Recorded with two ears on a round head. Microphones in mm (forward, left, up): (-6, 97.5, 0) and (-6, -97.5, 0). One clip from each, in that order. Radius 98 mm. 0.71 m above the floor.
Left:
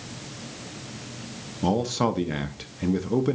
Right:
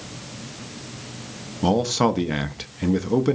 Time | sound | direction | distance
1.6 | a man speaking | 15° right (ahead or behind) | 0.6 m